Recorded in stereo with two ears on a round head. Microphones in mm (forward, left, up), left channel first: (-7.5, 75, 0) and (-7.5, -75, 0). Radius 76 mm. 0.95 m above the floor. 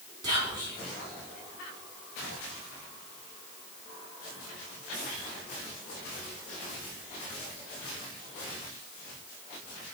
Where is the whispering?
25° right (ahead or behind), 2.5 m.